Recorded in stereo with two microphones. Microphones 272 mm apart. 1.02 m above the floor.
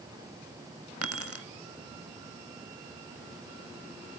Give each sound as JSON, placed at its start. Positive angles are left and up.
{"t": 1.0, "sound": "keys jangling", "side_deg": -60, "distance_m": 1.3}